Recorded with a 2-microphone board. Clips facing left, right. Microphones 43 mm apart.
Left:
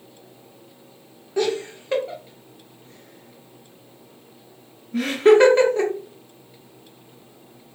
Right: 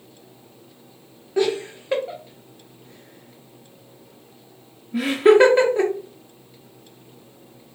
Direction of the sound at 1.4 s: 10° right (ahead or behind).